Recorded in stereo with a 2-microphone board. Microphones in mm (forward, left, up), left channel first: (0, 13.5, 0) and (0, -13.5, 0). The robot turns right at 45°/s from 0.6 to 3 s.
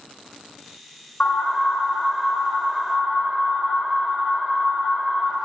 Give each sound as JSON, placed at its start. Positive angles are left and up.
{"t": 1.2, "sound": "an alarm", "azimuth_deg": 105, "distance_m": 2.5}